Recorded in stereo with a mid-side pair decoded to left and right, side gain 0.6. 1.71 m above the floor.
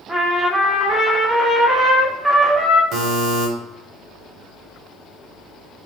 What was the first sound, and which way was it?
A trumpet, 10° right.